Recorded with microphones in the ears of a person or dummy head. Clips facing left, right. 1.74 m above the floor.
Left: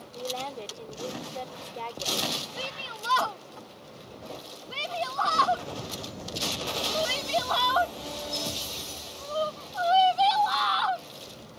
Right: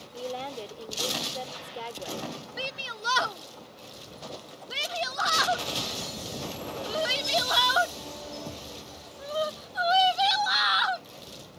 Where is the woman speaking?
10° right (ahead or behind).